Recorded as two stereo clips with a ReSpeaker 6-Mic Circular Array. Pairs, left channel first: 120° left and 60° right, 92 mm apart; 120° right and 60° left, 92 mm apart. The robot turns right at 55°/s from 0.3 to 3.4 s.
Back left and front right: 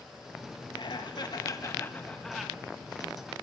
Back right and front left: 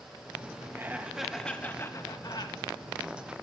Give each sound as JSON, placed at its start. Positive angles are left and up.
{"t": 0.8, "sound": "laughter", "azimuth_deg": 120, "distance_m": 1.2}